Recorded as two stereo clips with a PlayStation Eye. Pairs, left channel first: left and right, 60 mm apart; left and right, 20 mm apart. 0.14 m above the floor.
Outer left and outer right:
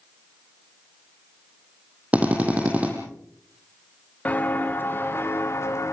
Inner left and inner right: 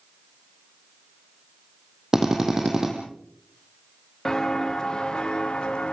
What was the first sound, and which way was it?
A drill, 25° right (ahead or behind).